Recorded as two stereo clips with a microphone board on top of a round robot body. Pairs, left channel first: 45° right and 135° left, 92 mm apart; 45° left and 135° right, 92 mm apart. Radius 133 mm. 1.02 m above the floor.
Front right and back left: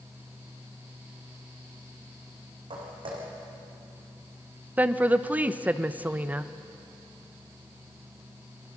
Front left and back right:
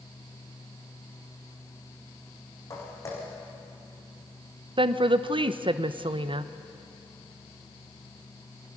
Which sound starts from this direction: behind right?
A woman speaking, at 4.8 s.